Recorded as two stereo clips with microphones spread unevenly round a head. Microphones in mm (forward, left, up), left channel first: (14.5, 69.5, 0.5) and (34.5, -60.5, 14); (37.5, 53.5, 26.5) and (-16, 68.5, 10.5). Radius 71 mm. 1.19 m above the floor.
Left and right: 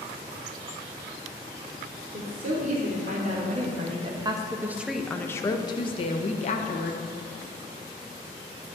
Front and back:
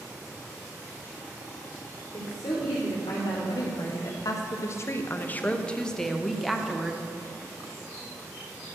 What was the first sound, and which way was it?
A woman speaking, 60° right.